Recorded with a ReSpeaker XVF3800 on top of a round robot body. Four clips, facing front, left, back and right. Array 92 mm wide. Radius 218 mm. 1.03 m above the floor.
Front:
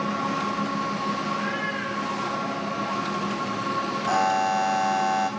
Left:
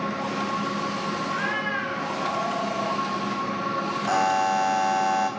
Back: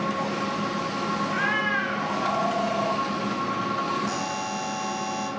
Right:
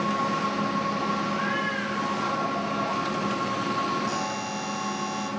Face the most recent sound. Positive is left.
turn(degrees=45)